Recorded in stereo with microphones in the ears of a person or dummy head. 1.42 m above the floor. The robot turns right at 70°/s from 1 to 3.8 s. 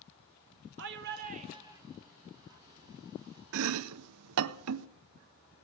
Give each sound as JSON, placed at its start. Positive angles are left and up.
{"t": 0.8, "sound": "a shout", "azimuth_deg": -65, "distance_m": 1.0}
{"t": 3.5, "sound": "chopping", "side_deg": -65, "distance_m": 0.5}